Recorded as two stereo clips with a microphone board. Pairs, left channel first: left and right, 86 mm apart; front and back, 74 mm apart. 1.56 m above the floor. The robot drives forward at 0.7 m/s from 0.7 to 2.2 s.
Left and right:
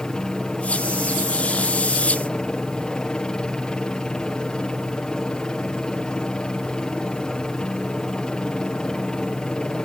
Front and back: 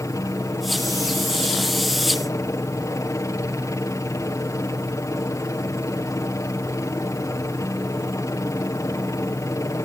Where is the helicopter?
15° left.